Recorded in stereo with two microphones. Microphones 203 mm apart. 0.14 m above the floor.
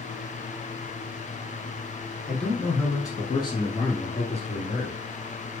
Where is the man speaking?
5° left (ahead or behind), 1.5 m; by 5.0 s 35° left (ahead or behind), 2.5 m.